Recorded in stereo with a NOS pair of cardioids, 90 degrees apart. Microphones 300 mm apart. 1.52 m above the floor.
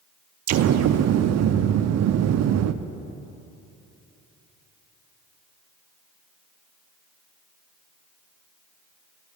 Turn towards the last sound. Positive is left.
turn(degrees=-60)